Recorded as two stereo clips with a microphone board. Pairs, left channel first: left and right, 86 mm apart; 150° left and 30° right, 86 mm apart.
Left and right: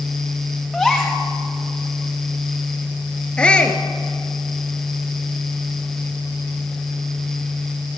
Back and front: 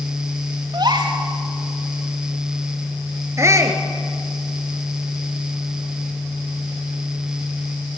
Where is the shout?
15° left, 2 m.